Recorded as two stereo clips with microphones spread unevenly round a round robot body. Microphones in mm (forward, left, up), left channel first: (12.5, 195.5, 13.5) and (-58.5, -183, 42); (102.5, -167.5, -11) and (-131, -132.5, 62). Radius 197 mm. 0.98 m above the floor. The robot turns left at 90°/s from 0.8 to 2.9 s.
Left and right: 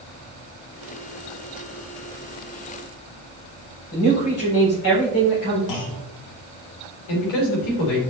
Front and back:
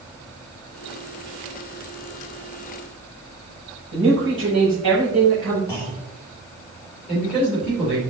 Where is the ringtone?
I don't hear a ringtone.